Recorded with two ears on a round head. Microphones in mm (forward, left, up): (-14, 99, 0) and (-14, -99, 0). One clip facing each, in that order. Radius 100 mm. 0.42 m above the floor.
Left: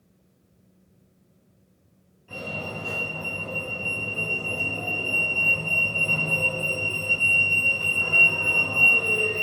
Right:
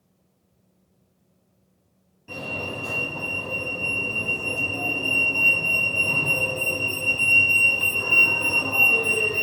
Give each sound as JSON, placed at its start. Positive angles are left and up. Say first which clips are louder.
{"t": 2.3, "sound": "a fire alarm", "louder": "right 2 dB", "side_deg": -55, "distance_m": 5.5}